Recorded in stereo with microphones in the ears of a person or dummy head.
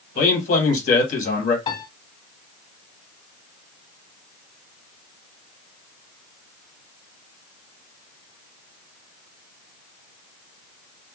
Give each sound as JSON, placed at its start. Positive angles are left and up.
{"t": 0.1, "sound": "a man speaking", "side_deg": 50, "distance_m": 1.9}
{"t": 1.7, "sound": "a piano", "side_deg": 35, "distance_m": 2.0}